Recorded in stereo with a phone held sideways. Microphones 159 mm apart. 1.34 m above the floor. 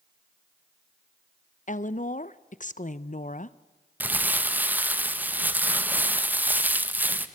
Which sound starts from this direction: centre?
Crumpling, at 4.0 s.